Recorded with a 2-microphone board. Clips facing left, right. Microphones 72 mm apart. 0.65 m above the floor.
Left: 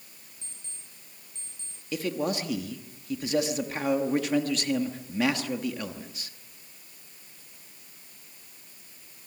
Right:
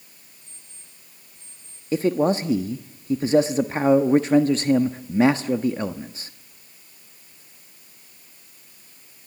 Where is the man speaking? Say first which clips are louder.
Right 9 dB; 35° right (ahead or behind), 1.0 m.